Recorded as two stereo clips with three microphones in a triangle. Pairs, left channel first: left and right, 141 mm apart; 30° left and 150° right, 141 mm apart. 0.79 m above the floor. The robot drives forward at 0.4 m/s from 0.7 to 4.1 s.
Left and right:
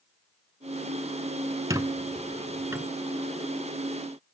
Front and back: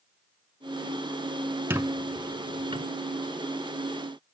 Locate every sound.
1.7 s a squeak: 105° right, 0.7 m; by 2.9 s 150° right, 0.9 m